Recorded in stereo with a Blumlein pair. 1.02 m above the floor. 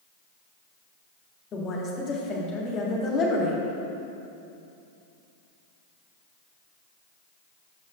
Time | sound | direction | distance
1.5 | a woman speaking | 30° left | 1.5 m